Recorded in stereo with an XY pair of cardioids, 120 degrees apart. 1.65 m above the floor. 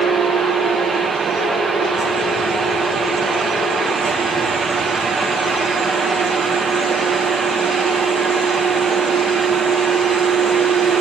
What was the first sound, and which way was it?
A fan, 35° right.